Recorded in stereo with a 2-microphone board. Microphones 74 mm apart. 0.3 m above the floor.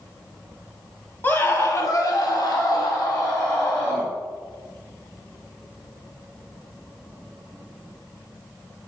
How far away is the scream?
About 1.5 m.